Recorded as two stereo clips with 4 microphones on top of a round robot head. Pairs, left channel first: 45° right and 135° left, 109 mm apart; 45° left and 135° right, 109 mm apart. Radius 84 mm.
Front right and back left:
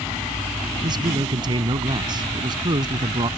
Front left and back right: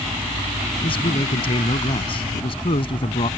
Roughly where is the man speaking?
Left.